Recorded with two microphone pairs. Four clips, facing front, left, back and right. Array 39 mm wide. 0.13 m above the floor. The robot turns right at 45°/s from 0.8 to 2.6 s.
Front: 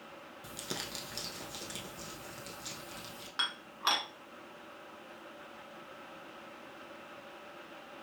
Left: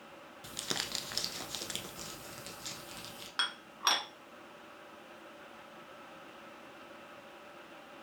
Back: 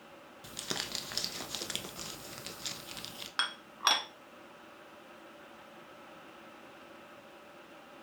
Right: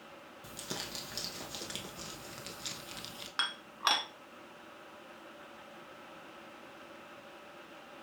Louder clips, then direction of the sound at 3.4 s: Even, back 2 dB; 160° right.